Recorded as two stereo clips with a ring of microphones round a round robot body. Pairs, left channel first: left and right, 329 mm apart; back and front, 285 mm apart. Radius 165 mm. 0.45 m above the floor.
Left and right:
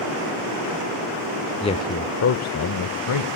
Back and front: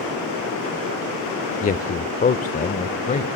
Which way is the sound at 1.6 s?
150° left.